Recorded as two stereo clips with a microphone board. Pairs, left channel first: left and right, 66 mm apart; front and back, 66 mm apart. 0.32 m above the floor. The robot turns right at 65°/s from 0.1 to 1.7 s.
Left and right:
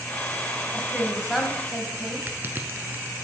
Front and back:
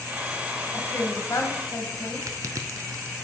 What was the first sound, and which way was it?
A woman speaking, 40° right.